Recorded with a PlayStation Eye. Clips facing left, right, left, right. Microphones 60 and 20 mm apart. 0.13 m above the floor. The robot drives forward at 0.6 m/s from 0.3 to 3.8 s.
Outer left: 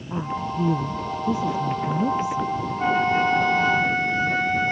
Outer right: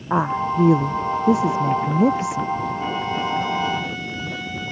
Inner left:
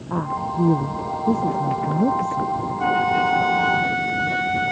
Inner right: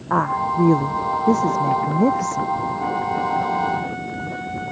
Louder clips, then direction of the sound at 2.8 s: Outer left 4 dB, inner left 3 dB; 45° left (ahead or behind).